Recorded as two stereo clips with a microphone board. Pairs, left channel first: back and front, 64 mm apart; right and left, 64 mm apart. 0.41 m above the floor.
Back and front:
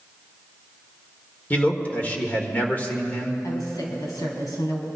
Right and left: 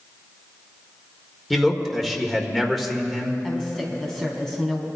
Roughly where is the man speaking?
Behind.